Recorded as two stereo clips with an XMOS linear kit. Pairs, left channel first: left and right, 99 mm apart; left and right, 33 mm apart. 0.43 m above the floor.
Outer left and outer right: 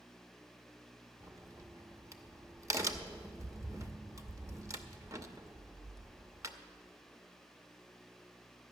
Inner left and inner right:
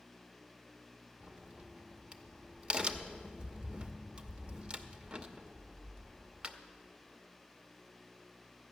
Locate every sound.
1.2 s a crack: 30° right (ahead or behind), 0.7 m